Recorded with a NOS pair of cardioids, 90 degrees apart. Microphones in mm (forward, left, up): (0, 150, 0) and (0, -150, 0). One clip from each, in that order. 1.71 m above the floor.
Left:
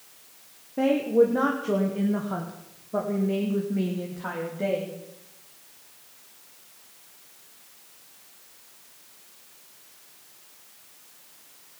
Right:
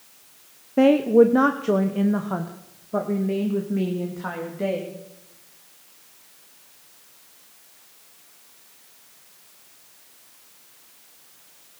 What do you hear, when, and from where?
0.8 s a woman speaking: 50° right, 1.0 m; by 5.0 s 15° right, 3 m